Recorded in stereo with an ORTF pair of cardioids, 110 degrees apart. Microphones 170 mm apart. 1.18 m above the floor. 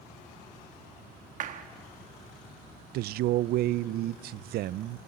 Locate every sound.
1.4 s a clap: 50° right, 1.4 m
2.9 s a man speaking: 65° right, 0.5 m